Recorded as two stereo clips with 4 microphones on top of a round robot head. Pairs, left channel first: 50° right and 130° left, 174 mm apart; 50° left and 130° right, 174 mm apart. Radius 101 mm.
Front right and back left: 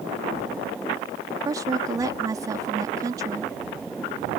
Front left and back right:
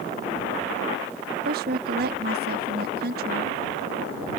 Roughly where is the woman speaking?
Behind.